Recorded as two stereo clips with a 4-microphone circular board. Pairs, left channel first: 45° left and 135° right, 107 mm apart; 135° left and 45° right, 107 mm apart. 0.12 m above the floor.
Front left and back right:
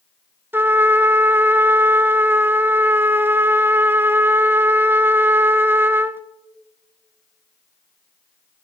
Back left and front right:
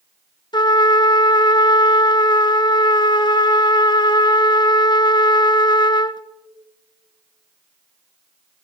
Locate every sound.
0.5 s a trumpet: 160° left, 0.6 m